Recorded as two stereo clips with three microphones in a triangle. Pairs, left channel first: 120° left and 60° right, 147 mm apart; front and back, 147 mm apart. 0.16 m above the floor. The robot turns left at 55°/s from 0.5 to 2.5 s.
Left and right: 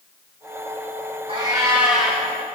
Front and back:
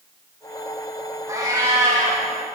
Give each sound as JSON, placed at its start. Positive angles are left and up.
{"t": 1.3, "sound": "a cat meowing", "azimuth_deg": -110, "distance_m": 3.5}